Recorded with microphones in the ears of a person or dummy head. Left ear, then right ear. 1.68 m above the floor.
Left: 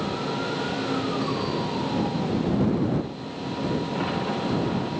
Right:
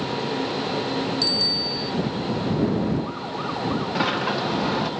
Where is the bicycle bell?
65° right (ahead or behind).